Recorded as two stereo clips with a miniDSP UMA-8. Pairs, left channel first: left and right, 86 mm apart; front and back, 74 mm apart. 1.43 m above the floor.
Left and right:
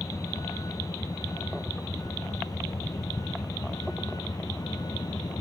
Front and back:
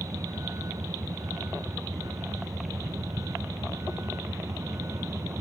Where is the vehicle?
140° left; by 5.4 s 130° left.